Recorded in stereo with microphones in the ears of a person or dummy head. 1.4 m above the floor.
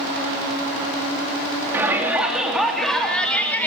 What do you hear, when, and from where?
1.7 s a shout: 15° right (ahead or behind), 3 m; by 3.7 s 5° left (ahead or behind), 3.5 m